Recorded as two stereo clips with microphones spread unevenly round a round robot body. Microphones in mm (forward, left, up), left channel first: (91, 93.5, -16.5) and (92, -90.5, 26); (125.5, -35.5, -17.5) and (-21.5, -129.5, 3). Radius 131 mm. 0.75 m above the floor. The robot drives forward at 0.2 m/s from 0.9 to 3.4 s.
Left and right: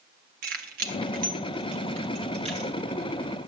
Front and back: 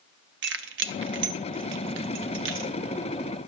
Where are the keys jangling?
150° right, 0.5 m; by 2.7 s 160° right, 0.9 m.